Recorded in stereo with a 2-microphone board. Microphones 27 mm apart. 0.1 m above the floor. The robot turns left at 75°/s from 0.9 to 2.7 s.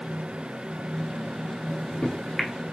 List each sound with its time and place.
1.7 s a microwave: 40° left (ahead or behind), 1.3 m; by 2.5 s 10° left (ahead or behind), 1.3 m